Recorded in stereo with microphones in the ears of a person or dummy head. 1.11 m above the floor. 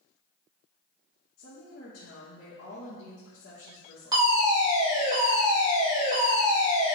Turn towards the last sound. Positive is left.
turn(degrees=-15)  # may be behind; listen again after turning